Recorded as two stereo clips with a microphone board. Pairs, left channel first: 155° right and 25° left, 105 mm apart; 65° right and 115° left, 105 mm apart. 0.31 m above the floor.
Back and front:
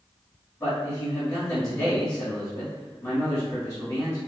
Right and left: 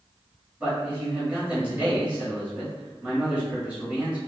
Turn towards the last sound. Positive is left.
turn(degrees=180)